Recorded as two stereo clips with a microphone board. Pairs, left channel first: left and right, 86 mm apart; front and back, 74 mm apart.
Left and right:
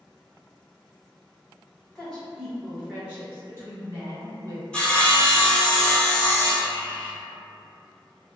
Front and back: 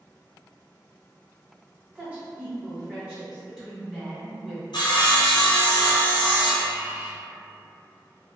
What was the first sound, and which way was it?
A woman speaking, 145° left.